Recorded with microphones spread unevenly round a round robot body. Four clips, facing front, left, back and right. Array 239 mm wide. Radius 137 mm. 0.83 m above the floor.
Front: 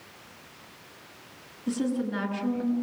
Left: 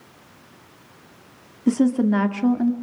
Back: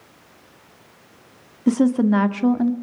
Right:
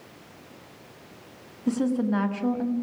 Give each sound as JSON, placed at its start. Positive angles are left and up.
{"t": 1.7, "sound": "a woman speaking", "azimuth_deg": 145, "distance_m": 1.9}